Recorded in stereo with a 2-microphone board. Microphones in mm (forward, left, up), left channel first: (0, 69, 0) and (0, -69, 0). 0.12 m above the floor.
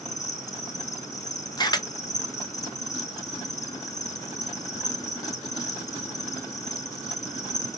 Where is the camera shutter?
30° left (ahead or behind), 0.6 m.